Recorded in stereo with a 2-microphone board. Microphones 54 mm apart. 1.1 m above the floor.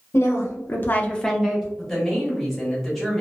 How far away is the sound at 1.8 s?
About 1.3 m.